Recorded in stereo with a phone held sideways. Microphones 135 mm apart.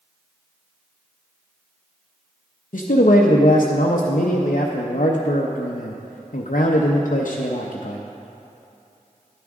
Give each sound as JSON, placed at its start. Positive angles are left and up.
{"t": 2.7, "sound": "a man speaking", "side_deg": 75, "distance_m": 0.6}